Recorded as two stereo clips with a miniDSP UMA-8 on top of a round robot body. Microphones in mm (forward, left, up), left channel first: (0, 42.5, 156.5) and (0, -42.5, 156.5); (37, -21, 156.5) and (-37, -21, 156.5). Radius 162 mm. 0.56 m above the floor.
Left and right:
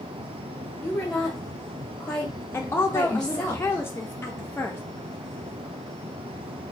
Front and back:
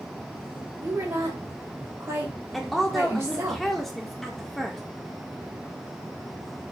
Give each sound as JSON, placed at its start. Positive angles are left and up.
{"t": 0.8, "sound": "a woman speaking", "azimuth_deg": 165, "distance_m": 1.2}
{"t": 2.5, "sound": "a woman speaking", "azimuth_deg": 85, "distance_m": 0.6}